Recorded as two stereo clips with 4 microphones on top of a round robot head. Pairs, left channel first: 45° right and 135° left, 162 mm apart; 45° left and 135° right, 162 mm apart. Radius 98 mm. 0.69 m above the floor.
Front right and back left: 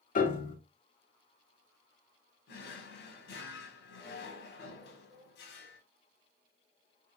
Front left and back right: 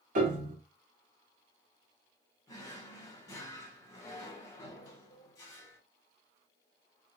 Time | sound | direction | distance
0.1 | a piano | 85° right | 1.0 m
2.5 | a drawer | 25° right | 0.9 m